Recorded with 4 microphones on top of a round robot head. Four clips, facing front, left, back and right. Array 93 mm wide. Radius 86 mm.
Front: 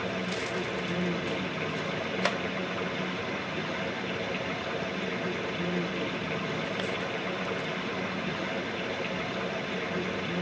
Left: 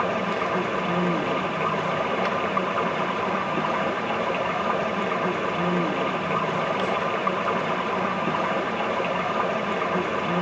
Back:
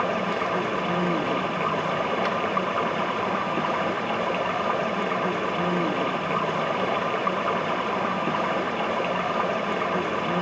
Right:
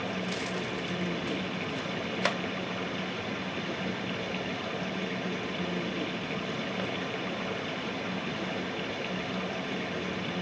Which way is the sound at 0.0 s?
135° left.